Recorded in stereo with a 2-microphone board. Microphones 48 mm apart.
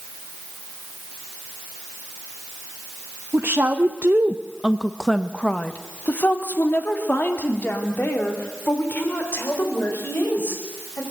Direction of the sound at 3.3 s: 70° right (ahead or behind).